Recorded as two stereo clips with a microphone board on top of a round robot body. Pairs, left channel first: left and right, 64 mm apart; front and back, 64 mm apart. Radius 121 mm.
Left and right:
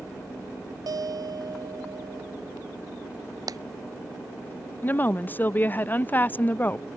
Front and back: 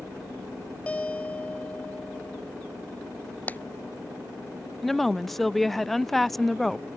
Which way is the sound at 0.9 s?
70° right.